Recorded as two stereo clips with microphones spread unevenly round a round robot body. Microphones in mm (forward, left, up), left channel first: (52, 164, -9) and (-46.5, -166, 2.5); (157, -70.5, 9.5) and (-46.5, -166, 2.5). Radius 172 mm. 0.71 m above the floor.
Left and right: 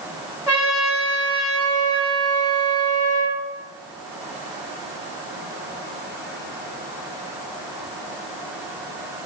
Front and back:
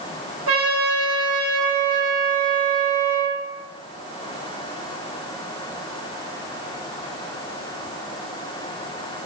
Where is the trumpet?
175° left, 1.3 m.